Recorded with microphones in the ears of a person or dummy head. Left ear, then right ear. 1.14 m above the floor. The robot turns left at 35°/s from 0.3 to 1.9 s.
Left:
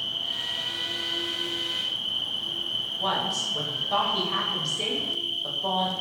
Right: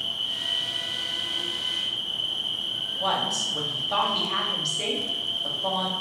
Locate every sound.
0.0 s an insect: 175° left, 1.1 m; by 6.0 s 120° left, 1.1 m
3.0 s a woman speaking: 5° right (ahead or behind), 0.6 m